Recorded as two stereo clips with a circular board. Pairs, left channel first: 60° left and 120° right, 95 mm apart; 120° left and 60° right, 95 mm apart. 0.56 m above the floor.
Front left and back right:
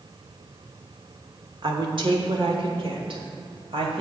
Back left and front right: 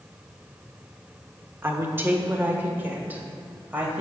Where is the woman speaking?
120° right, 1.1 m; by 4.0 s 130° right, 2.5 m.